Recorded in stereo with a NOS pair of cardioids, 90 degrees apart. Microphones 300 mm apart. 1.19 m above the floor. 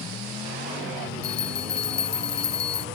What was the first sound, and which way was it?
A bell, 55° left.